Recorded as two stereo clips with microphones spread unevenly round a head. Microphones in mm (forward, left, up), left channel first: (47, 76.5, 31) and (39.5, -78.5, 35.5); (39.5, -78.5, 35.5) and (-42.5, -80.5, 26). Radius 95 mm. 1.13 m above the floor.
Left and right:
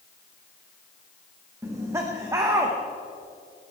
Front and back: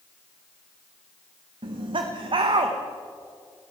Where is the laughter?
170° right, 1.0 m.